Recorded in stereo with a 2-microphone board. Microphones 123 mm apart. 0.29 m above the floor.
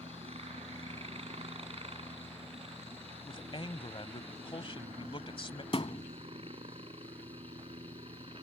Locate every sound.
0.0 s a helicopter: 55° right (ahead or behind); by 8.4 s 45° right (ahead or behind)
3.3 s a man speaking: 45° left (ahead or behind)
5.7 s a thud: 50° left (ahead or behind)